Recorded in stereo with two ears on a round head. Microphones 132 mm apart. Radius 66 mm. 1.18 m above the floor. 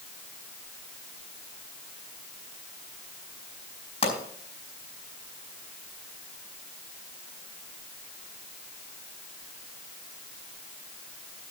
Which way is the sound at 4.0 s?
40° left (ahead or behind).